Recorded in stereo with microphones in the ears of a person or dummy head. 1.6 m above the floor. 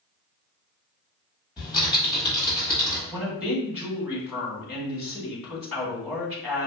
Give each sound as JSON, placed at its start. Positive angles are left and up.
{"t": 1.6, "sound": "typing on a keyboard", "side_deg": -10, "distance_m": 1.6}
{"t": 3.1, "sound": "a woman speaking", "side_deg": -10, "distance_m": 1.7}